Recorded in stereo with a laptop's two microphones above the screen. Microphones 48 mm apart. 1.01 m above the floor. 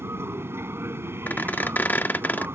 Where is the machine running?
65° right (ahead or behind).